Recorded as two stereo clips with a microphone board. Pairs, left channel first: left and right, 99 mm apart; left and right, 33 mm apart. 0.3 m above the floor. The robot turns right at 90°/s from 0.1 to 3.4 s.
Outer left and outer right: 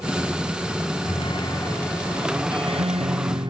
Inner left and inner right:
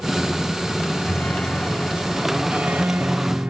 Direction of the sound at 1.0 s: 95° left.